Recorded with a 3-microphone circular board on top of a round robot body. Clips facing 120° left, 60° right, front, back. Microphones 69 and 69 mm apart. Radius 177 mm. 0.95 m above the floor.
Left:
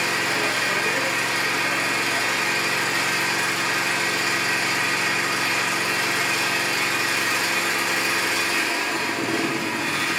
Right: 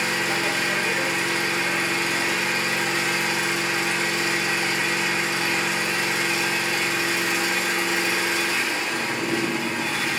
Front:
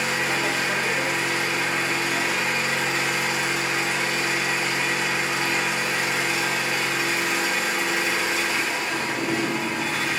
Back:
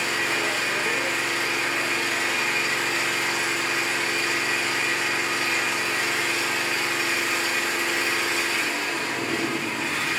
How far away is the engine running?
About 1.2 m.